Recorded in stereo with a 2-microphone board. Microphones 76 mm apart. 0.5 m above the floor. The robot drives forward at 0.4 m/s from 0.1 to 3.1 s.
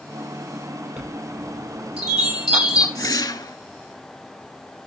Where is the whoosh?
55° left (ahead or behind), 0.9 m; by 3.6 s 60° left (ahead or behind), 0.9 m.